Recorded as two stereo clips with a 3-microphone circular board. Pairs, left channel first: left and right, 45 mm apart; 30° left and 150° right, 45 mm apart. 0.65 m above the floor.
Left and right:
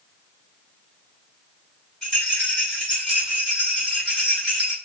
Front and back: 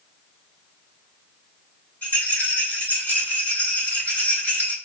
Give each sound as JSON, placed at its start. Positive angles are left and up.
{"t": 2.0, "sound": "a rattle", "azimuth_deg": 15, "distance_m": 1.3}